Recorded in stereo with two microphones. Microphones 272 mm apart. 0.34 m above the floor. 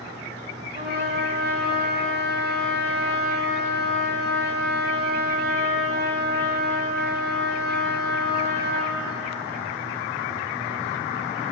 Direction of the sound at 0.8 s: 35° right (ahead or behind).